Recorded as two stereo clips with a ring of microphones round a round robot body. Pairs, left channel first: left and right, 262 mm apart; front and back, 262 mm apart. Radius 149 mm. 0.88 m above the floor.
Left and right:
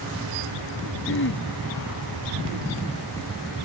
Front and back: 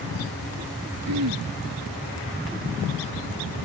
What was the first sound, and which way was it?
Throat clearing, 140° left.